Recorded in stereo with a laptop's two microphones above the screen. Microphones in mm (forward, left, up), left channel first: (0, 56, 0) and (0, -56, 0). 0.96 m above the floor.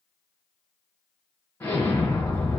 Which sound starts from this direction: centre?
An explosion, at 1.6 s.